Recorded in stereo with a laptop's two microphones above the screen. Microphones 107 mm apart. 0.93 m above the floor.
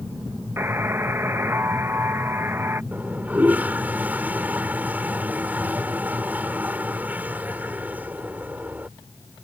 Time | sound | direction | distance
0.6 | a buzzer | 25° right (ahead or behind) | ?
2.9 | a toilet flushing | 15° right (ahead or behind) | ?